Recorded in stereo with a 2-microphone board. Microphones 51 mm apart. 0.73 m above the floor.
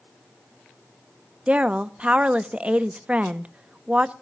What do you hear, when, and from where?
1.5 s a woman speaking: 25° right (ahead or behind), 0.6 m